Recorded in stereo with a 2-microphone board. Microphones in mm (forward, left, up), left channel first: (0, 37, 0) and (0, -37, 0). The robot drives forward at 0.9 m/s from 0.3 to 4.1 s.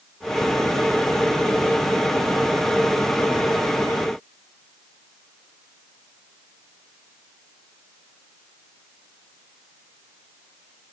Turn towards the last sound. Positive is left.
No sound to turn to.